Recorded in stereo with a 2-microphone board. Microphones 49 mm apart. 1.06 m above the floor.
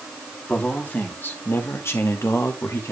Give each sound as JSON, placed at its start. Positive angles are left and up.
{"t": 0.5, "sound": "a man speaking", "side_deg": 30, "distance_m": 2.5}